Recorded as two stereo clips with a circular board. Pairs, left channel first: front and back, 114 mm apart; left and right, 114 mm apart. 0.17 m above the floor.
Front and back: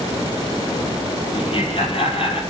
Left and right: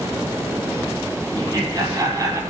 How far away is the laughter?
About 6 m.